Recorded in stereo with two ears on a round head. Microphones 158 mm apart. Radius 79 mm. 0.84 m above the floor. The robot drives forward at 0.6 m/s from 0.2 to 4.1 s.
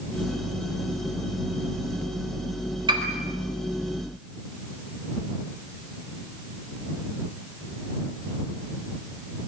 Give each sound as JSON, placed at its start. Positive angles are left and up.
{"t": 2.9, "sound": "a piano", "side_deg": -30, "distance_m": 4.0}